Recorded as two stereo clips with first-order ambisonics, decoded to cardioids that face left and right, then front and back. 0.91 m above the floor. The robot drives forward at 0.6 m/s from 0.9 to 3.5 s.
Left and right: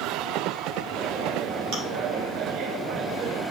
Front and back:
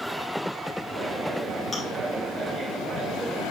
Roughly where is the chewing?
Right.